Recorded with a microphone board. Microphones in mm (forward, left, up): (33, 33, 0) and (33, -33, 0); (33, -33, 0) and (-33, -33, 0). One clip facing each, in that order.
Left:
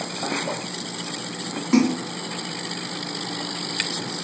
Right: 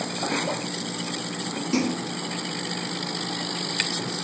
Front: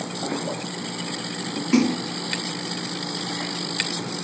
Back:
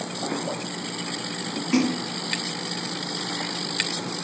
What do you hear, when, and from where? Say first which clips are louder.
1.7 s a splash: left 7 dB, front 3 dB; 90° left, 1.8 m